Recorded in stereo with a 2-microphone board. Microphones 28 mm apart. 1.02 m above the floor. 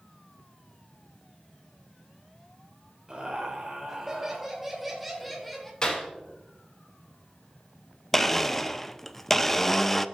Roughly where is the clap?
Left.